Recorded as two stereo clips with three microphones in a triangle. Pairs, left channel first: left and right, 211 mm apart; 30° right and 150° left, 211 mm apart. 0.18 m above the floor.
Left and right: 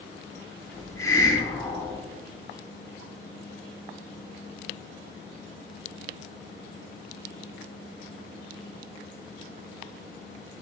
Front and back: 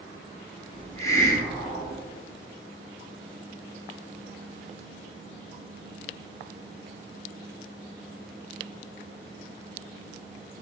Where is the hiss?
30° left, 0.5 m.